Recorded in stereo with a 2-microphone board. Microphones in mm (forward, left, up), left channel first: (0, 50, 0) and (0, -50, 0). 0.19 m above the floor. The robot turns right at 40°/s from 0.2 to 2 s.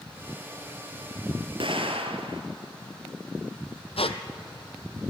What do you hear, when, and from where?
1.6 s an explosion: 60° right (ahead or behind), 1.8 m; by 2.4 s 75° right (ahead or behind), 1.8 m
4.0 s a squeak: 90° left, 1.0 m